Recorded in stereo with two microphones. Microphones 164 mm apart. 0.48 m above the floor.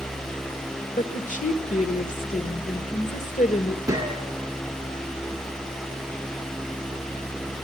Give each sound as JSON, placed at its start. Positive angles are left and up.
{"t": 1.0, "sound": "a woman speaking", "side_deg": 55, "distance_m": 1.5}
{"t": 3.9, "sound": "a gunshot", "side_deg": -20, "distance_m": 3.5}